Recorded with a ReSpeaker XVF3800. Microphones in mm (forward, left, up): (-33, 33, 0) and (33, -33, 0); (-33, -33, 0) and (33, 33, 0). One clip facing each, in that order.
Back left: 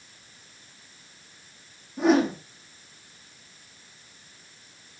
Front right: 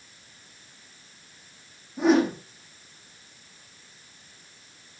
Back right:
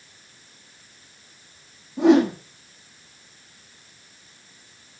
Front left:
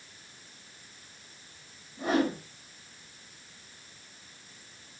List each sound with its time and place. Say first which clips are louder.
2.0 s a whoosh: even, back right 11 dB; 135° right, 4.5 m